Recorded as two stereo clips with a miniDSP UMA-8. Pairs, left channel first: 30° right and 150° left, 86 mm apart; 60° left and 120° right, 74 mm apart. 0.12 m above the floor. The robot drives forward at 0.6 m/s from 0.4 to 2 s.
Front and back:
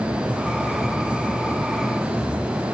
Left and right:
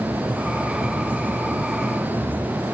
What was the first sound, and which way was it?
Only background noise.